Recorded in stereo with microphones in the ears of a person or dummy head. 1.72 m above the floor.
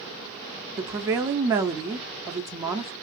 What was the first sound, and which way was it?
A woman speaking, 20° right (ahead or behind).